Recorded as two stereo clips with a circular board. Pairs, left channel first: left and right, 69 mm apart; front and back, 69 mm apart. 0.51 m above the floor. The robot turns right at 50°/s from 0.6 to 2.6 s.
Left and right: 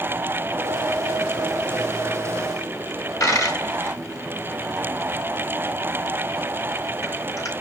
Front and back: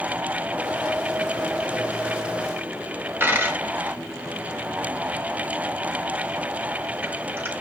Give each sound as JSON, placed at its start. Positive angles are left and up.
{"t": 3.2, "sound": "a dropped coin", "azimuth_deg": 125, "distance_m": 0.8}